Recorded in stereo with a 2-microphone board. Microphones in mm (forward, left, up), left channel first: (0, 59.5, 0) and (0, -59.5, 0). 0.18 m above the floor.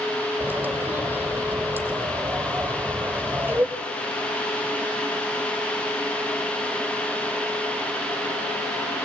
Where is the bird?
15° right (ahead or behind), 3 m.